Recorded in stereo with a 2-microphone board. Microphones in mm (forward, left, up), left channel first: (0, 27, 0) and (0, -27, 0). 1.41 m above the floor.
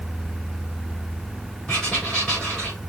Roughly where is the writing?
Centre.